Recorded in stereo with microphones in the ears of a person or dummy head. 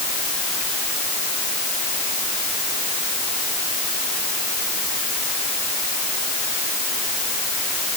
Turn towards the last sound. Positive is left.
No sound to turn to.